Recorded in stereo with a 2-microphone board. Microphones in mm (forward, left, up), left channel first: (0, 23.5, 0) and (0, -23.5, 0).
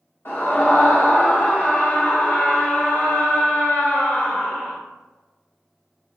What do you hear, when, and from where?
0.2 s a scream: 55° left (ahead or behind), 2 m